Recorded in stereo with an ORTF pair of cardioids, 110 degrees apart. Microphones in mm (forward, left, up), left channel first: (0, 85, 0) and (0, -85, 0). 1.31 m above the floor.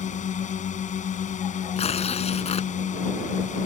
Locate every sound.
0.0 s a drone: 45° left
1.8 s tearing paper: 35° left